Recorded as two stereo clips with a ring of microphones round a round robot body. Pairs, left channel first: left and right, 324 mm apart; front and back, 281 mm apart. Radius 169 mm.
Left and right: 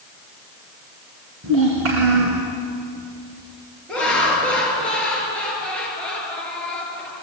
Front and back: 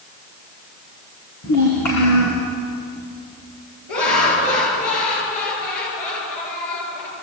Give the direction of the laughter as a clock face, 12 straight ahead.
12 o'clock.